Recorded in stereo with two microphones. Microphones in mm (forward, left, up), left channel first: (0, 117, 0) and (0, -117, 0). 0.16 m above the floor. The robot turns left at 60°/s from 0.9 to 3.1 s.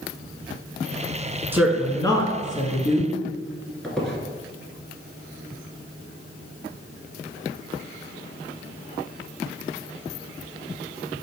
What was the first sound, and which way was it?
A woman speaking, 165° right.